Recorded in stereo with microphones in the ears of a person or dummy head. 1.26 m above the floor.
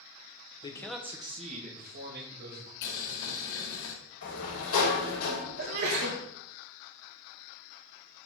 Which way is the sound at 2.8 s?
70° left (ahead or behind).